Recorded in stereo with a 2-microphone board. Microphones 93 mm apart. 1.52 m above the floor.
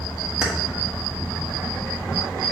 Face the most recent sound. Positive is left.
turn(degrees=-10)  # may be behind; listen again after turning